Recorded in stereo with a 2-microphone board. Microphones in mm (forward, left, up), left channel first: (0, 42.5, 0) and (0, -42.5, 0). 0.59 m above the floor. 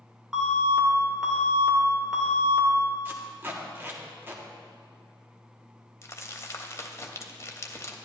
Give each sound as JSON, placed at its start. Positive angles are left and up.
{"t": 0.3, "sound": "an alarm", "side_deg": -5, "distance_m": 1.7}
{"t": 3.0, "sound": "tape being pulled", "side_deg": -25, "distance_m": 1.1}
{"t": 6.0, "sound": "crumpling", "side_deg": 35, "distance_m": 0.7}